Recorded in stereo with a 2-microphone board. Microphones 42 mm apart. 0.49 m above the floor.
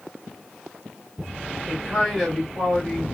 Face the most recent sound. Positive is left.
turn(degrees=0)  # may be behind; listen again after turning